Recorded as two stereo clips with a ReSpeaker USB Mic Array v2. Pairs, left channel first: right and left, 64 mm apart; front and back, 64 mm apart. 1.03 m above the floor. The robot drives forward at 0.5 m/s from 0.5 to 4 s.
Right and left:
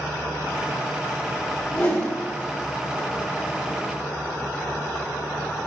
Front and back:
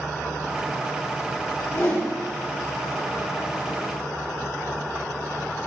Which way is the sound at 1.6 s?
35° right.